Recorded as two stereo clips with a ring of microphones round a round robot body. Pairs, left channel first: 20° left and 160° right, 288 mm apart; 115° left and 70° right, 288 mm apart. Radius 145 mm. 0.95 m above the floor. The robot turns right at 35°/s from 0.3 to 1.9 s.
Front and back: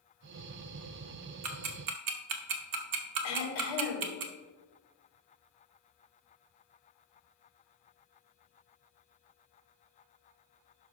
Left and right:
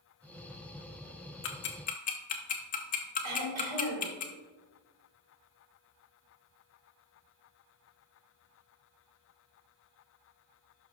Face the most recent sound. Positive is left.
turn(degrees=-25)